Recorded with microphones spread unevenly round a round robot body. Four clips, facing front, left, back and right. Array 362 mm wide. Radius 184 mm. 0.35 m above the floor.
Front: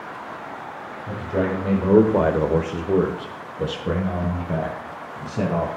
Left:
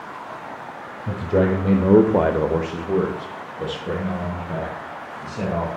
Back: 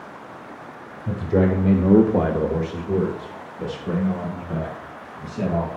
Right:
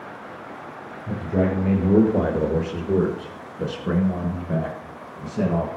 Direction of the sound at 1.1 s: 135° left.